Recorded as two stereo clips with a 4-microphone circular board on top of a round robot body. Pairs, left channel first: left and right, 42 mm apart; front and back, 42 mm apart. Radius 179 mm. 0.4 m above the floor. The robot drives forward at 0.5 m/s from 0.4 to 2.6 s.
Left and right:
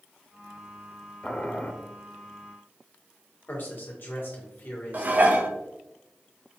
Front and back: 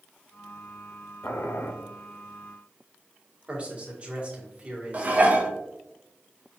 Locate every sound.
1.2 s boiling: 20° left, 0.8 m; by 1.7 s 30° left, 0.6 m
3.5 s a man speaking: 125° left, 1.7 m
4.9 s dishes clattering: 130° right, 0.9 m